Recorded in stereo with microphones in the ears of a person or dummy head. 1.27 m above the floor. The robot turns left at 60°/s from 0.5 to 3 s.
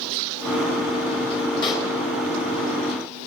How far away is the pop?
About 4 m.